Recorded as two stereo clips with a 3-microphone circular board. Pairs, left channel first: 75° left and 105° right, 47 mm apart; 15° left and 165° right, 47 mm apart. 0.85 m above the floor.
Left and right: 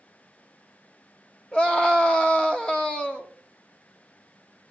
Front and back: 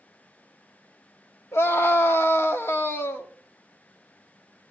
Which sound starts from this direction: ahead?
A scream, at 1.5 s.